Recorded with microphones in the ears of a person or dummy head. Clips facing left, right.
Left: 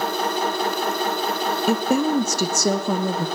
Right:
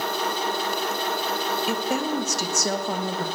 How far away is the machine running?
About 1.3 m.